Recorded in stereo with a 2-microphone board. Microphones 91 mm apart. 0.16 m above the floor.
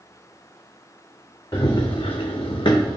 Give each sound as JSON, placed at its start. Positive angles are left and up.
{"t": 1.5, "sound": "running footsteps", "side_deg": 45, "distance_m": 0.6}